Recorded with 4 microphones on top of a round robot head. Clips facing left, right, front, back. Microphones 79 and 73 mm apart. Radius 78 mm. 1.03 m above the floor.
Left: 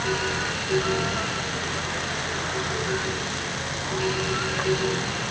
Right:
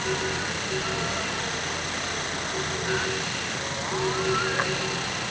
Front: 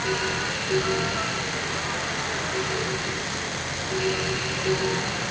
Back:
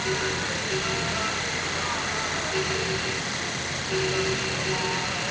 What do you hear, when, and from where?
Only background noise.